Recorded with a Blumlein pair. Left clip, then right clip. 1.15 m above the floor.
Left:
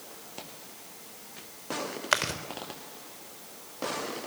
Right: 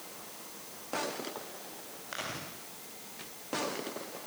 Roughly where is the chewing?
Ahead left.